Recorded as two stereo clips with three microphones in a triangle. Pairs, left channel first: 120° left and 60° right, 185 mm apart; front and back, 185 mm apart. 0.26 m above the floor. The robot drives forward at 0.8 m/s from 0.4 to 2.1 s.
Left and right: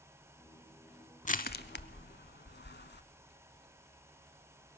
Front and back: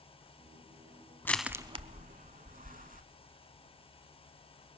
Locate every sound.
1.2 s crushing: 80° left, 0.6 m; by 3.0 s 135° left, 0.8 m